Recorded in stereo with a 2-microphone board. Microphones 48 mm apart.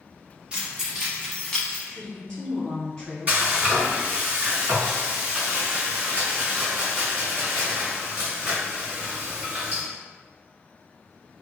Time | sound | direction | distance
0.5 | keys jangling | 25° right (ahead or behind) | 0.9 m
1.9 | a woman speaking | 20° left (ahead or behind) | 1.2 m
3.3 | frying | 35° right (ahead or behind) | 1.8 m